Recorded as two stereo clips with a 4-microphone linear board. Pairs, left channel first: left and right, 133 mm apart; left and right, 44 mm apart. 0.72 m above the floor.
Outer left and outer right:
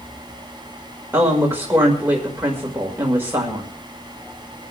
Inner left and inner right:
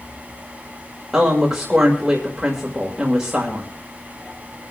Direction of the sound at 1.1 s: 15° right (ahead or behind).